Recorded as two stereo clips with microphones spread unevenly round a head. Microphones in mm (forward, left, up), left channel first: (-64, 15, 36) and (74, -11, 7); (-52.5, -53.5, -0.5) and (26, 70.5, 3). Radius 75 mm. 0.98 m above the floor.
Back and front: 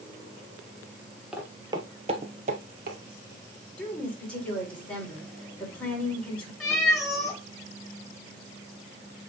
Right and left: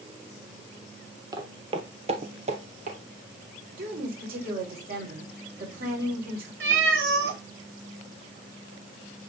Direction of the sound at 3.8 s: 85° left.